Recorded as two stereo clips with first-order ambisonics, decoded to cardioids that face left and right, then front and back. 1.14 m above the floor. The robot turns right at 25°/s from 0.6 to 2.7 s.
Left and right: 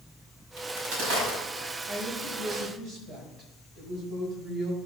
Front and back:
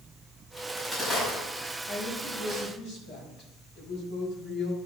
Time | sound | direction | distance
0.6 | a crack | 100° right | 5.5 m
1.9 | a woman speaking | 70° right | 5 m